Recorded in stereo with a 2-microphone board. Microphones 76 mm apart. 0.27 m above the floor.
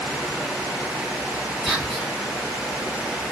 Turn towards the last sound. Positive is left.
turn(degrees=-5)  # may be behind; listen again after turning